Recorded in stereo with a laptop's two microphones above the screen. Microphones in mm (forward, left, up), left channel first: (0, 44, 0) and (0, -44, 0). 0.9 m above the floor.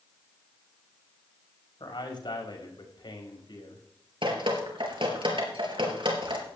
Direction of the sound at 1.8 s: 60° left (ahead or behind).